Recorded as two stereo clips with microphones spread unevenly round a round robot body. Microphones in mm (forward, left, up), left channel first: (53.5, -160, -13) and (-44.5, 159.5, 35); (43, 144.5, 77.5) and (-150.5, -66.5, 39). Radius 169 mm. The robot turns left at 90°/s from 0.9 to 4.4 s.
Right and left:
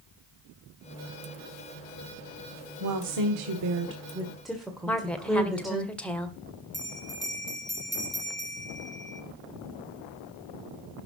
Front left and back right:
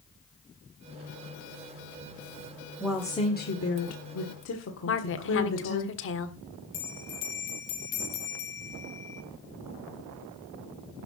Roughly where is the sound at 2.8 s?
Behind left.